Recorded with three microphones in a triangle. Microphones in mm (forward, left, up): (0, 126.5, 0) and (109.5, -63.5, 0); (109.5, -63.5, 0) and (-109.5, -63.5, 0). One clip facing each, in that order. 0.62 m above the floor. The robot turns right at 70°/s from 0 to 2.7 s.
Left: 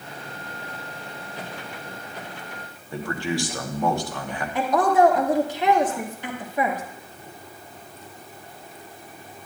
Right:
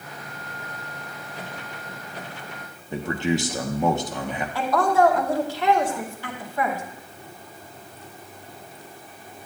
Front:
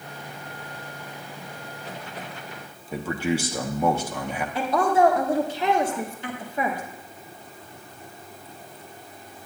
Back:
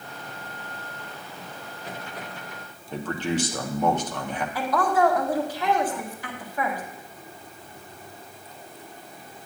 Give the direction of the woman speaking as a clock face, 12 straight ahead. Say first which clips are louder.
Left 2 dB, front 2 dB; 10 o'clock.